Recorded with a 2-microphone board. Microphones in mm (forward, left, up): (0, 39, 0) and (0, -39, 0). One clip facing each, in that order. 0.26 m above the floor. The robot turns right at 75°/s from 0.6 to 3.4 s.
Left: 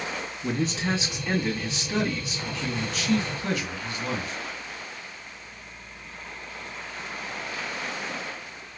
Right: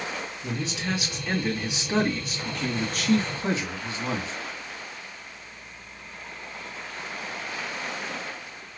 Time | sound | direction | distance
0.4 | a man speaking | 120° left | 1.7 m